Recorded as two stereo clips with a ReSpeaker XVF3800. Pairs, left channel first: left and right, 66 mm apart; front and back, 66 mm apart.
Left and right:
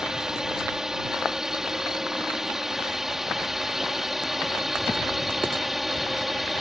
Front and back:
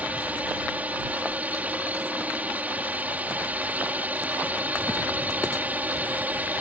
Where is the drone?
160° right; by 6.6 s 170° right.